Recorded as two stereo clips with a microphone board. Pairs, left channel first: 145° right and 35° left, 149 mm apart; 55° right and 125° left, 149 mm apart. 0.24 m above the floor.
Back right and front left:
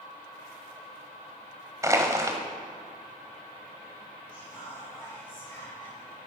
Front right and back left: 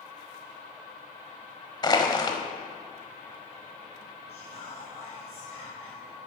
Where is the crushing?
20° right, 1.3 m.